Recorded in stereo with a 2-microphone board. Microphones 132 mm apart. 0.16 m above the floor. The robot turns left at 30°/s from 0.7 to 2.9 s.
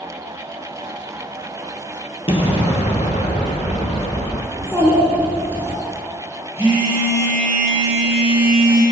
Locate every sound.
2.3 s an explosion: 45° left (ahead or behind), 1.1 m; by 4.4 s 60° left (ahead or behind), 1.1 m
4.5 s a child speaking: 20° left (ahead or behind), 1.6 m
6.6 s a phone buzzing: 45° left (ahead or behind), 2 m